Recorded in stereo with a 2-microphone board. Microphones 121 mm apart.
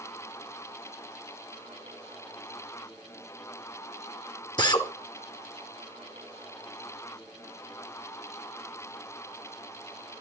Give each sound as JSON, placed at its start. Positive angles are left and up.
{"t": 4.6, "sound": "a drill", "side_deg": 35, "distance_m": 2.0}